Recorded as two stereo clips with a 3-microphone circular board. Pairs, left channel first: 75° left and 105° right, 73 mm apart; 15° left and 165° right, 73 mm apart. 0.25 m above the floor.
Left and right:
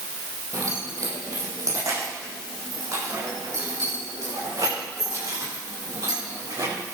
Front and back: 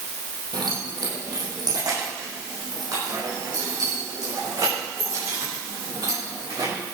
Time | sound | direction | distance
0.5 | keys jangling | 145° right | 5 m